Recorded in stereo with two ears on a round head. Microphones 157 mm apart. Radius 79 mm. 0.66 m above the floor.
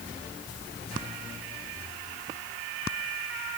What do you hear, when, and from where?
Only background noise.